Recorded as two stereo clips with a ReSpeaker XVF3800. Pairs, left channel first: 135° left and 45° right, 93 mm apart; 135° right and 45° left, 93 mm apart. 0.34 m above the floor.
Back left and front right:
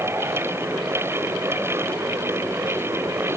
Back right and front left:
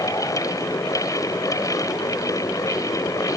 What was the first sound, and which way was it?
Only background noise.